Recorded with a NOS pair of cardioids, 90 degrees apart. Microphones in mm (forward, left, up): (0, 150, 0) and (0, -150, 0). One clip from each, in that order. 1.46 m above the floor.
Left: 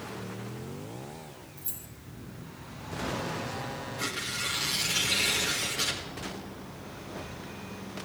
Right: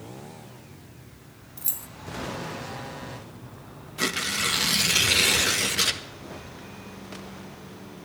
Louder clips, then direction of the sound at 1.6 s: Right 12 dB; 60° right.